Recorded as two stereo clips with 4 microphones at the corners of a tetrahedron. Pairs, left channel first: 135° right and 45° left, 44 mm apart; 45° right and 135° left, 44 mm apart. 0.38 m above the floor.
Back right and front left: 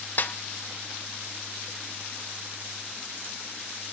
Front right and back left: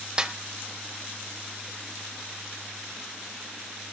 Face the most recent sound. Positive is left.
turn(degrees=-160)